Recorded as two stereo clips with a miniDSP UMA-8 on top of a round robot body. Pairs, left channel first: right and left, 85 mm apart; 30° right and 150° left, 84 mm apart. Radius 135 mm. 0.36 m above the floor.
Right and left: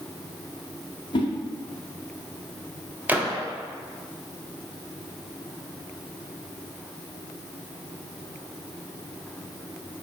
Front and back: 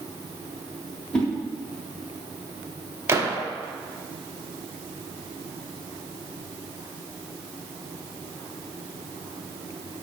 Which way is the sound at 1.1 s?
110° right.